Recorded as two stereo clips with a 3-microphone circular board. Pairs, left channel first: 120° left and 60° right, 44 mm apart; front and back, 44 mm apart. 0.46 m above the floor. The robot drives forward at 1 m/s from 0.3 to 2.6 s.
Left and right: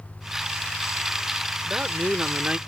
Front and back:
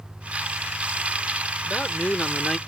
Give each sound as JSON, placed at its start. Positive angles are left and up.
{"t": 1.6, "sound": "a man speaking", "azimuth_deg": -20}